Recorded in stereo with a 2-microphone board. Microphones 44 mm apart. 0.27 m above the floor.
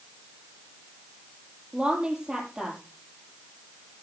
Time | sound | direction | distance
1.7 | a woman speaking | 20° right (ahead or behind) | 7.5 m